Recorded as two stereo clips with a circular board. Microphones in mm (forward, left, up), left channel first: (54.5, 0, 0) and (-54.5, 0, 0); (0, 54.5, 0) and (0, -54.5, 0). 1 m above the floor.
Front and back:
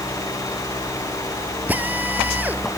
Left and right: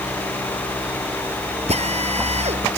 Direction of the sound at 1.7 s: 105° right.